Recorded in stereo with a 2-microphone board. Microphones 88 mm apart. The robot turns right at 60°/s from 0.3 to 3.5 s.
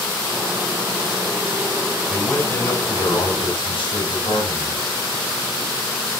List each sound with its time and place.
2.1 s a man speaking: 10° left, 4.5 m; by 4.8 s 95° left, 4.5 m